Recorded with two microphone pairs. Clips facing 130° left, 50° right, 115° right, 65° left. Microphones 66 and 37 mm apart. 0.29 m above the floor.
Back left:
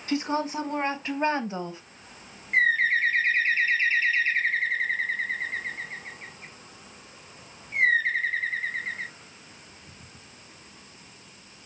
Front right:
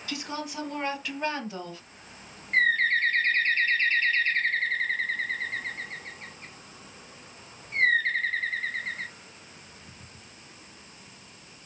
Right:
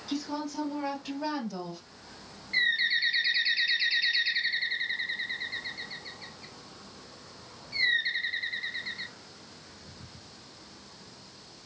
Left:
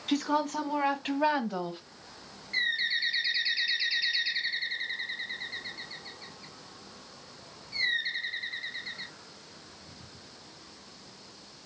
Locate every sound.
0.1 s a woman speaking: 80° left, 3 m; by 1.8 s 85° left, 1.6 m
2.5 s a bird: 170° right, 0.7 m